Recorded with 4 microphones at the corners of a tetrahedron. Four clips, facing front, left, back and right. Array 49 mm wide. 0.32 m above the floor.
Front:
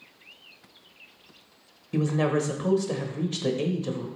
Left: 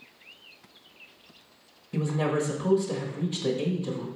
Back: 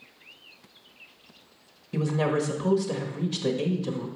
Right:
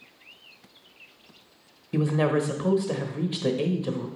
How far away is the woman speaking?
About 1.1 m.